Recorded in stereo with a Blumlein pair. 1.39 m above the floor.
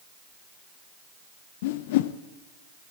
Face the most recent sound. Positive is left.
turn(degrees=50)